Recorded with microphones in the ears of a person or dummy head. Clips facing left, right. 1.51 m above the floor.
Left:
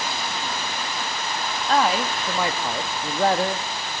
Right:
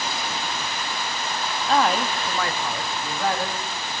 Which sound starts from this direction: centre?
A man speaking, at 1.7 s.